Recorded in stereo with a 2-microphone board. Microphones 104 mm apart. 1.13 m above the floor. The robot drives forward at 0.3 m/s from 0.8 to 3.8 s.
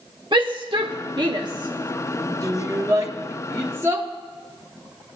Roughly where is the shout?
Right.